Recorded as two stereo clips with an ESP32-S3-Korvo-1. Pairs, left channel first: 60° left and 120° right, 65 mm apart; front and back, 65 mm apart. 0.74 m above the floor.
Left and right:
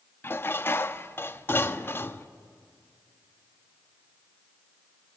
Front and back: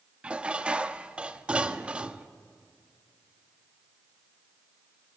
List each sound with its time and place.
0.2 s dishes clattering: 110° left, 0.6 m